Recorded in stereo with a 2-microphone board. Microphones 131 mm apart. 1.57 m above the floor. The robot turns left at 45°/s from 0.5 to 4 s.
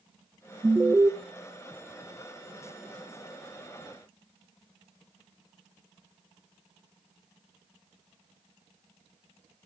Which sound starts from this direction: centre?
An alarm, at 0.6 s.